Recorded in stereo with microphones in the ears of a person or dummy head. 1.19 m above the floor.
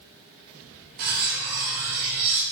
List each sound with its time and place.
1.0 s cutlery clinking: 50° right (ahead or behind), 0.7 m